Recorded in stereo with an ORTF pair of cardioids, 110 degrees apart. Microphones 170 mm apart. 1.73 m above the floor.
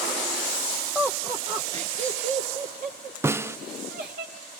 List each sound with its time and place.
0.9 s laughter: 5° right, 0.9 m; by 4.2 s 60° right, 3 m
3.2 s a snare drum: 15° right, 0.5 m